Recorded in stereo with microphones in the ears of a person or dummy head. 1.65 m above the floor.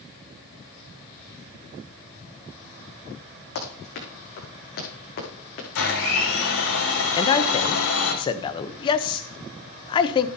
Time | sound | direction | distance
3.5 | running footsteps | 65° left (ahead or behind) | 5.5 m
5.8 | a blender | 80° left | 6.5 m
7.1 | a man speaking | 30° left (ahead or behind) | 0.8 m